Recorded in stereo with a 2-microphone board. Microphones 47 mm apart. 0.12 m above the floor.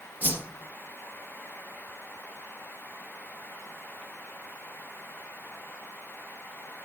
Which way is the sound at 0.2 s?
40° right (ahead or behind).